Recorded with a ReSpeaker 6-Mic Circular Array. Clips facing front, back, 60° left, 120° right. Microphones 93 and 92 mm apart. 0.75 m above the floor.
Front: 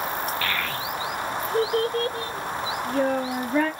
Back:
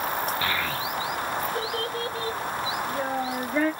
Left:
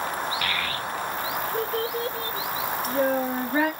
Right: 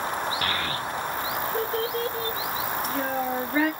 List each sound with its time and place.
0.4 s a child speaking: 125° right, 0.6 m; by 3.7 s 10° right, 1.6 m